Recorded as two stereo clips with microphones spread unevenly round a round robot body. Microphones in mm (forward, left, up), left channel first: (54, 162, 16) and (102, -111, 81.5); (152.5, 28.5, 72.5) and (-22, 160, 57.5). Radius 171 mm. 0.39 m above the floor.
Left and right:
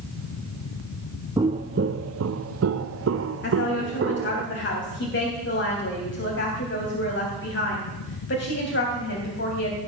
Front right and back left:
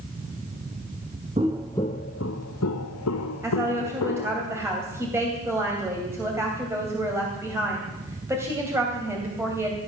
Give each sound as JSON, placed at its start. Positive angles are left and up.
{"t": 1.4, "sound": "footsteps", "azimuth_deg": -145, "distance_m": 0.6}
{"t": 3.4, "sound": "a woman speaking", "azimuth_deg": 65, "distance_m": 3.0}